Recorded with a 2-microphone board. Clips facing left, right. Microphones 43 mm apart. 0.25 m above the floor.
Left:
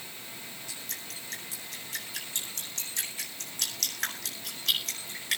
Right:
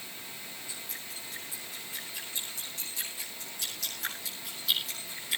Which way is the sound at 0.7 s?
70° left (ahead or behind).